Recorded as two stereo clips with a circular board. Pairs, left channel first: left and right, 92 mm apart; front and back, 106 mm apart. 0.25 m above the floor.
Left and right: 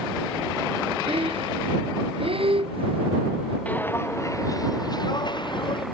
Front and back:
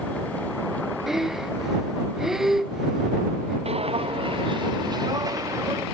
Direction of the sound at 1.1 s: 95° right.